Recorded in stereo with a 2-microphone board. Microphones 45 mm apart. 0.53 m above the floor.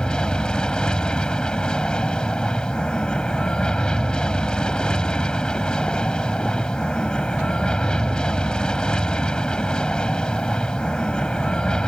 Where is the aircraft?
20° left (ahead or behind).